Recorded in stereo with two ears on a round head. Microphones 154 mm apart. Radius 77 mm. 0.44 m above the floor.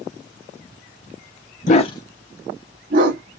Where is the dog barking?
45° left (ahead or behind), 0.6 m; by 3.2 s 60° right (ahead or behind), 0.9 m.